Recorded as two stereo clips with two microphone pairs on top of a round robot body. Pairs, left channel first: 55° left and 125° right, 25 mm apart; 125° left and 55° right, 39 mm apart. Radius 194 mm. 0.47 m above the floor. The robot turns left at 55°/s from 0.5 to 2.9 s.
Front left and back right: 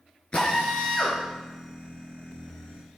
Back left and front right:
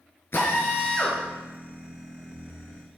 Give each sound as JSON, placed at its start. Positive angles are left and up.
{"t": 0.3, "sound": "a drill", "azimuth_deg": 95, "distance_m": 4.5}